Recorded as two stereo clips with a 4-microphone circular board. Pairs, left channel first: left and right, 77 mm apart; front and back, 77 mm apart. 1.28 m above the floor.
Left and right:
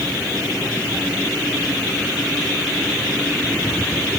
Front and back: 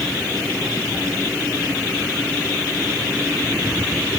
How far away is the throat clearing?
I don't hear throat clearing.